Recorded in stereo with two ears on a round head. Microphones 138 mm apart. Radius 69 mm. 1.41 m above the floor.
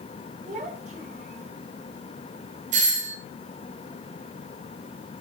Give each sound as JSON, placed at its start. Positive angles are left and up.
{"t": 0.5, "sound": "a child speaking", "side_deg": -50, "distance_m": 5.0}
{"t": 2.7, "sound": "a doorbell", "side_deg": -50, "distance_m": 3.0}